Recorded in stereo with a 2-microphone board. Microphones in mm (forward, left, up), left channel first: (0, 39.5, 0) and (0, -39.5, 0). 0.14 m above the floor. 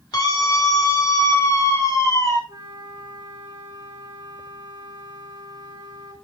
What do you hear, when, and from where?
0.1 s a scream: 60° left (ahead or behind), 5 m; by 2.4 s 40° left (ahead or behind), 8 m
2.5 s a flute: 60° right (ahead or behind), 3 m